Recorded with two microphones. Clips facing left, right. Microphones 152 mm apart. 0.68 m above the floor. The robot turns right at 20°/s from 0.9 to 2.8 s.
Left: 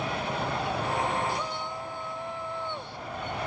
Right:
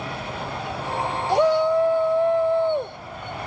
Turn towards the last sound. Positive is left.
turn(degrees=-60)